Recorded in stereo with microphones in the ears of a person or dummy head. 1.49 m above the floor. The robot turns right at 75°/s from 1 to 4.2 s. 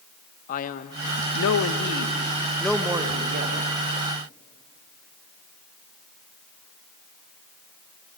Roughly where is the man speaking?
Ahead left.